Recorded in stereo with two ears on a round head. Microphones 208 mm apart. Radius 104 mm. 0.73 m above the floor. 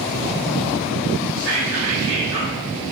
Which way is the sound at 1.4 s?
65° right (ahead or behind).